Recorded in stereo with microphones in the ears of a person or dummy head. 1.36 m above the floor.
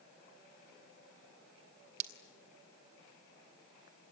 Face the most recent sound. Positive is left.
turn(degrees=-40)  # may be behind; listen again after turning